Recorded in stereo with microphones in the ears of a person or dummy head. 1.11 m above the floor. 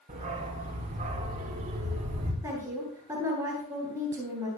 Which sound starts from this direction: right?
A dog barking, at 0.1 s.